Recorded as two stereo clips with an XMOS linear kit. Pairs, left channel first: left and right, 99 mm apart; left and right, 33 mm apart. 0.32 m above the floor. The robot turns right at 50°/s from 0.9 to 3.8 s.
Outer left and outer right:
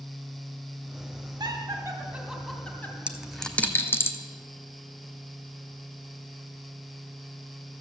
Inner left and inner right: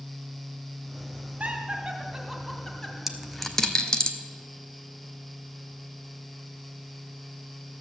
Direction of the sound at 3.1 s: 10° right (ahead or behind).